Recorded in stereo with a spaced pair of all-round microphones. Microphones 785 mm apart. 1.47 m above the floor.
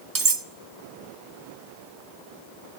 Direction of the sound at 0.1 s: 25° right (ahead or behind).